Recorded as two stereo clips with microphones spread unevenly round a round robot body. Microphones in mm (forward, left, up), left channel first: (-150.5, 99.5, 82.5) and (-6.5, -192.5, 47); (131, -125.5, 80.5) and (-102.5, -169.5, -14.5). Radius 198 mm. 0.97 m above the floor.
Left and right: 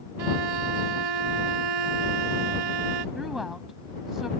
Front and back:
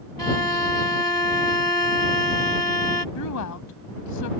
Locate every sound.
0.2 s a violin: 60° right
3.1 s a woman speaking: 25° left